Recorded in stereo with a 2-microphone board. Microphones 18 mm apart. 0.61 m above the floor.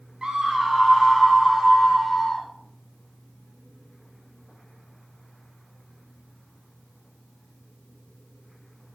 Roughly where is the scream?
Right.